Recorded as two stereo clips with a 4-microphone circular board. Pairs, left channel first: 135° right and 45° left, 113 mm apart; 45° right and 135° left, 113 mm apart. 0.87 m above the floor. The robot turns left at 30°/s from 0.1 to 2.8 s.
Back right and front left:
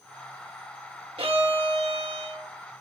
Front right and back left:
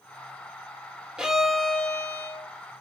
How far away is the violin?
About 1.6 m.